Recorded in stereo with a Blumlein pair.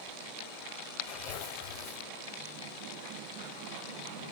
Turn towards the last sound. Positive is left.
turn(degrees=45)